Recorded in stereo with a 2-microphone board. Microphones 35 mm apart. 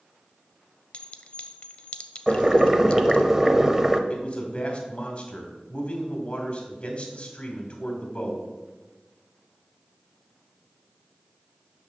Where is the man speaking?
30° left (ahead or behind), 2 m.